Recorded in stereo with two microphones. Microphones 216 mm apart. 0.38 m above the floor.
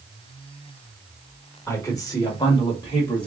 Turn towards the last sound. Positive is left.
turn(degrees=20)  # may be behind; listen again after turning